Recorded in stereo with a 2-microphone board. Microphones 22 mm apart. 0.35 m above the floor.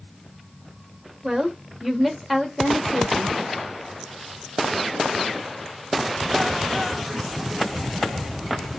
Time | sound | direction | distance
1.2 | a woman speaking | 25° right (ahead or behind) | 1.0 m